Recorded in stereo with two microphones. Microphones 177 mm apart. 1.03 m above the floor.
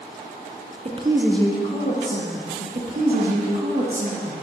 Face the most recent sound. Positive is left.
turn(degrees=-55)  # may be behind; listen again after turning